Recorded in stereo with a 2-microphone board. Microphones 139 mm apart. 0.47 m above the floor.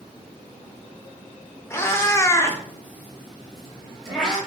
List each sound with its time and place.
1.7 s a cat meowing: 15° left (ahead or behind), 0.7 m; by 4.4 s centre (ahead or behind), 1.6 m